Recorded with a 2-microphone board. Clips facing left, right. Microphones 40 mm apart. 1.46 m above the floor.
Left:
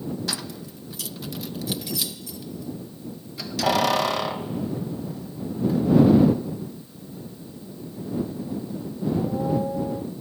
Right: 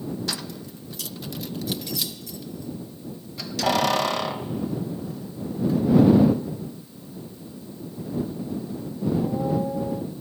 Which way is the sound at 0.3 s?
Centre (ahead or behind).